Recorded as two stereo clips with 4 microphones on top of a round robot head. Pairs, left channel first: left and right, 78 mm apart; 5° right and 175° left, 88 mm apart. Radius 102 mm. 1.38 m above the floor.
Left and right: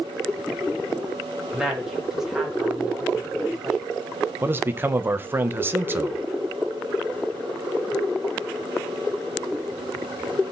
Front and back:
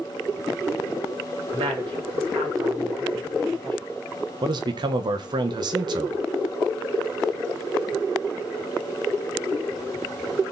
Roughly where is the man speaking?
Behind right.